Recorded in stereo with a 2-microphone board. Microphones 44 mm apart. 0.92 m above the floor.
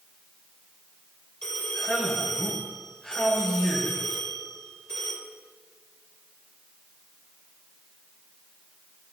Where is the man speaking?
20° left (ahead or behind), 4.5 m.